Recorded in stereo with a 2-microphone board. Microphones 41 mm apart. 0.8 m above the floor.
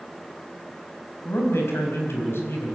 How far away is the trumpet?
I don't hear a trumpet.